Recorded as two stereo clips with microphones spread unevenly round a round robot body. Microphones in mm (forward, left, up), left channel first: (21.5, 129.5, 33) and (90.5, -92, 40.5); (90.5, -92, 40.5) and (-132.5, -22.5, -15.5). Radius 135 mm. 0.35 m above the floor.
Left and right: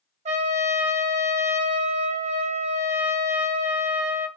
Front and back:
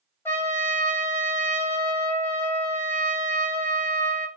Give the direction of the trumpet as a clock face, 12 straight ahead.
4 o'clock.